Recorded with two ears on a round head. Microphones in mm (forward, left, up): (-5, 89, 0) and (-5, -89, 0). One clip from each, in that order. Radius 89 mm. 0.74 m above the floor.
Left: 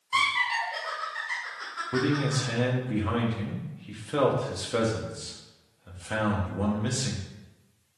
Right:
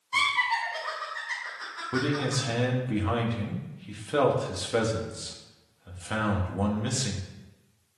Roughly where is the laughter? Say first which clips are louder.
Even; left.